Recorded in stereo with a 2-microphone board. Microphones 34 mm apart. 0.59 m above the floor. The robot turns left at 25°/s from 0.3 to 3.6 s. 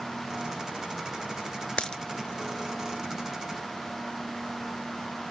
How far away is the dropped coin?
About 0.5 m.